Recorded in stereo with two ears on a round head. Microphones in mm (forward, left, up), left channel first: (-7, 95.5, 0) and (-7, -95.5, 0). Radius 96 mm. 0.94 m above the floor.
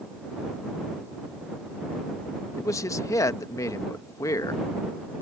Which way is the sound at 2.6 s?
15° left (ahead or behind).